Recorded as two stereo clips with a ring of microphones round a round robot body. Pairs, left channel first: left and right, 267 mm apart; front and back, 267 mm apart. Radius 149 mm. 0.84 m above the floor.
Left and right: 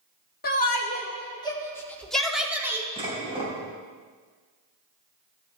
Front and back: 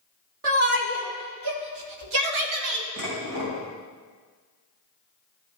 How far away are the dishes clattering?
About 4 m.